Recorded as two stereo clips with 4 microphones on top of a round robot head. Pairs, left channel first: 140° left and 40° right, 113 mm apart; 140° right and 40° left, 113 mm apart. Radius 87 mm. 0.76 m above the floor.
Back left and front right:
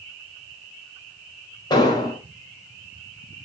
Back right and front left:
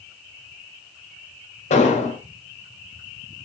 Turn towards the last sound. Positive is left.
turn(degrees=-165)